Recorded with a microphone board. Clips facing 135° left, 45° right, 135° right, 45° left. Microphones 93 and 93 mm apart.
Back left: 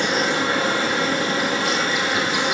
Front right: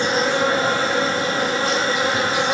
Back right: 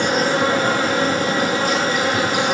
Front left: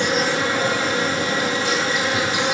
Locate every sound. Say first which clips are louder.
0.0 s an insect: front right 2 dB, back right 3 dB; 95° right, 3.5 m